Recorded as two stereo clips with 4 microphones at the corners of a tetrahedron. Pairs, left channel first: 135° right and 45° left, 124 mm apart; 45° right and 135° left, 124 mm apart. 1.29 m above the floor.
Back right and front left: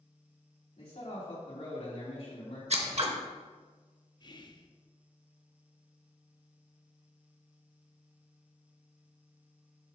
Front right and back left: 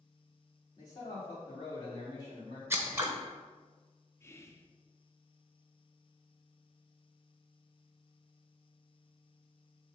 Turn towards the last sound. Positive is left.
turn(degrees=-100)